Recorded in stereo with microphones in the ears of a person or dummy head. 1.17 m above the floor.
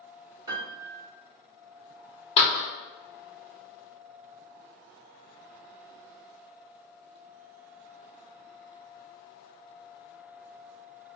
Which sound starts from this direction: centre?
A piano, at 0.5 s.